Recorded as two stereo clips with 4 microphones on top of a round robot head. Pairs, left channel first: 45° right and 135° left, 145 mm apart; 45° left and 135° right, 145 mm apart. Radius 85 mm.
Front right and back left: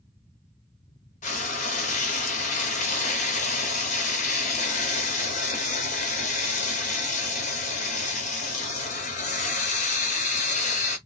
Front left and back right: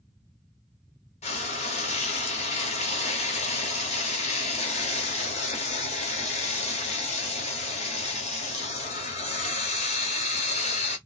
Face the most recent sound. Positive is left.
turn(degrees=-5)